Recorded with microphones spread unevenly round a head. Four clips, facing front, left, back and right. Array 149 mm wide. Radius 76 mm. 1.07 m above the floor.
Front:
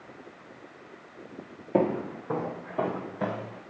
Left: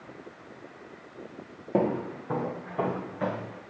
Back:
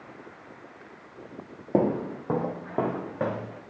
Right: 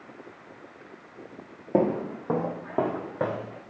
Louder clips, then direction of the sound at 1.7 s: Right 2 dB, back 1 dB; 140° right.